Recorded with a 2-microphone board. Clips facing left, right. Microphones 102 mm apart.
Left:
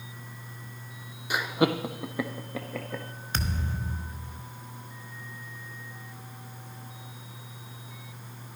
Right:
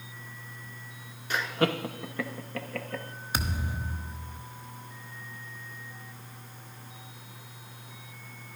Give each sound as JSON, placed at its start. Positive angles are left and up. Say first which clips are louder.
{"t": 1.3, "sound": "laughter", "louder": "left 2 dB", "side_deg": 10, "distance_m": 0.8}
{"t": 3.3, "sound": "a thud", "louder": "even", "side_deg": -10, "distance_m": 1.1}